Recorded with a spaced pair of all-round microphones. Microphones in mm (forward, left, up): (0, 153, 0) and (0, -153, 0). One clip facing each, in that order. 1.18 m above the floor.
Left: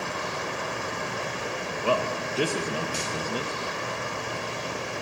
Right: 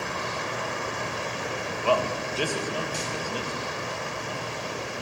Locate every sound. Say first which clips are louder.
1.8 s a man speaking: right 1 dB; 25° left (ahead or behind), 1.3 m